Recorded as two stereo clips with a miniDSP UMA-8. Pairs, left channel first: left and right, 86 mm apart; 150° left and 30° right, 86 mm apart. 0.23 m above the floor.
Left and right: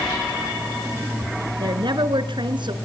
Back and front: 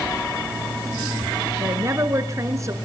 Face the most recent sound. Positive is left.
turn(degrees=-80)